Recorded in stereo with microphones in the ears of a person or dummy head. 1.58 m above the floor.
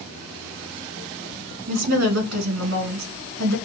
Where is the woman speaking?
65° right (ahead or behind), 1.5 m.